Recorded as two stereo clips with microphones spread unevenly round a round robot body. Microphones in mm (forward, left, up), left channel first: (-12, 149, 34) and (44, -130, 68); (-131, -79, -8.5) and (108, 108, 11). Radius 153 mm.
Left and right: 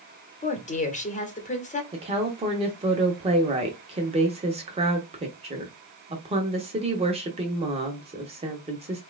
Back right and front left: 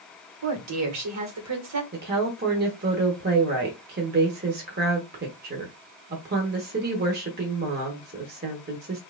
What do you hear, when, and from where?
0.4 s a woman speaking: 50° left, 1.3 m
1.9 s a woman speaking: 10° right, 1.0 m